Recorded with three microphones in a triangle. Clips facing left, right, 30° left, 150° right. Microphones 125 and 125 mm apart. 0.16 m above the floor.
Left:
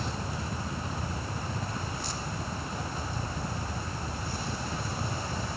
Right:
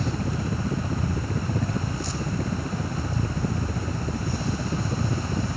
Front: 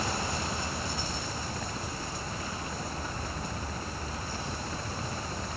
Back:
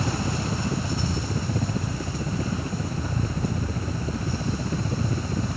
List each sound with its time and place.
0.0 s a helicopter: 110° right